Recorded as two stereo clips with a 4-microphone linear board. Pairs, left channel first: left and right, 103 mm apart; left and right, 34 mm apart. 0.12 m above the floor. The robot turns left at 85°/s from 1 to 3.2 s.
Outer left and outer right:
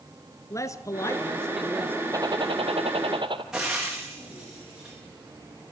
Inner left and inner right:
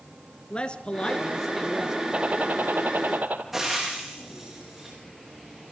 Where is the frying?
5° right (ahead or behind), 8.5 m.